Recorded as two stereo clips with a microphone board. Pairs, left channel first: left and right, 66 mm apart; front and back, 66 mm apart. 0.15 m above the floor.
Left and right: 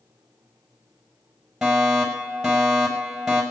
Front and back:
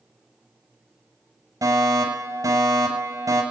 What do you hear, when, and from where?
1.6 s a fire alarm: 175° right, 5.5 m